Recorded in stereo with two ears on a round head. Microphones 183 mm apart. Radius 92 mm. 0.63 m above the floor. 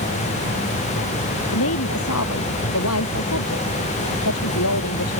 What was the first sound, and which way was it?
A woman speaking, 80° left.